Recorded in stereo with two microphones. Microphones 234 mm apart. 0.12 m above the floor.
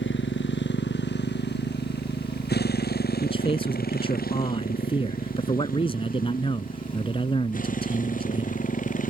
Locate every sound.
0.0 s a motorcycle: 50° left (ahead or behind); by 9.1 s 35° left (ahead or behind)
3.2 s a man speaking: 25° left (ahead or behind)